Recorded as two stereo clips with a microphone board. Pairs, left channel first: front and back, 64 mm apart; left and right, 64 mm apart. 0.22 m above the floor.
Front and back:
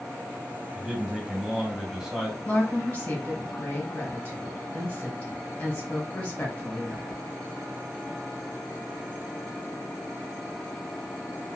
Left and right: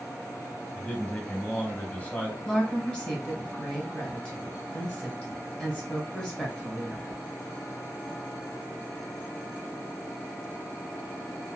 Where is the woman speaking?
35° left, 1.3 m.